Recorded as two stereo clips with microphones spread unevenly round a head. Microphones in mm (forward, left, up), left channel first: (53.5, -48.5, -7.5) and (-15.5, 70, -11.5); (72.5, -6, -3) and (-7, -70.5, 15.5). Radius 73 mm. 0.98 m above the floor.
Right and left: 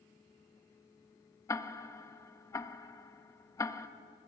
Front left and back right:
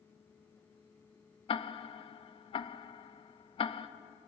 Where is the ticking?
10° left, 0.9 m.